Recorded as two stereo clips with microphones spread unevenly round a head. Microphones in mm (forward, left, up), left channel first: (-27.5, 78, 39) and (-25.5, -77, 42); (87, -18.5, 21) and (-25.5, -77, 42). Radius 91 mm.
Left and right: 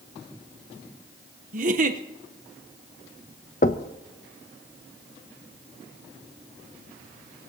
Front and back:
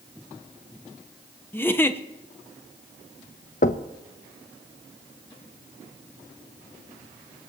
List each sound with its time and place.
1.5 s a giggle: 45° right, 1.0 m
3.6 s knocking: 55° left, 0.6 m